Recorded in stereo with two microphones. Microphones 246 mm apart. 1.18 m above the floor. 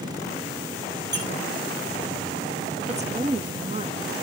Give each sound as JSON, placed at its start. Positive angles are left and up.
{"t": 1.1, "sound": "a squeak", "side_deg": -45, "distance_m": 7.0}
{"t": 2.9, "sound": "a woman speaking", "side_deg": -25, "distance_m": 1.2}